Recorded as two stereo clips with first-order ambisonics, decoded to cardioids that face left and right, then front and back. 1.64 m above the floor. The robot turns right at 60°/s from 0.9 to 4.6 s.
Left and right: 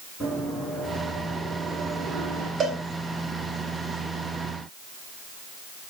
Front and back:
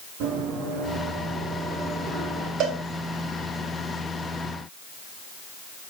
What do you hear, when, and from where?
0.2 s running footsteps: 175° left, 6 m; by 2.5 s 95° right, 4 m
2.6 s a cowbell: 150° right, 2.5 m; by 2.8 s 140° right, 2.5 m